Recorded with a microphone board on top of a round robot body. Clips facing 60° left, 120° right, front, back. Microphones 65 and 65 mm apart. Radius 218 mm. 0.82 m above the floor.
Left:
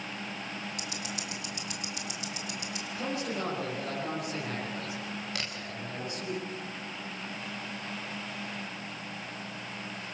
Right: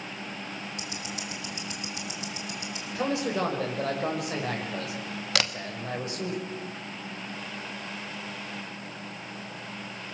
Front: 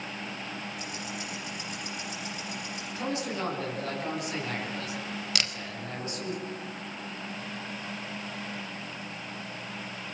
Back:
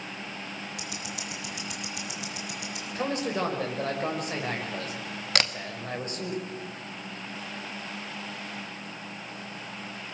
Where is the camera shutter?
135° right, 1.6 m.